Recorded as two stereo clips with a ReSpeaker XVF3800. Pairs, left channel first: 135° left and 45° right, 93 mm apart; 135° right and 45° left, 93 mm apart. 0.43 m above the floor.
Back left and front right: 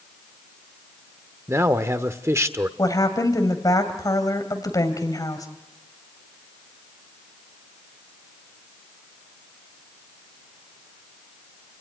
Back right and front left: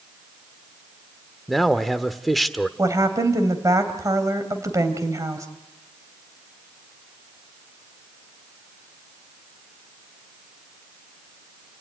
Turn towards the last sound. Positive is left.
turn(degrees=95)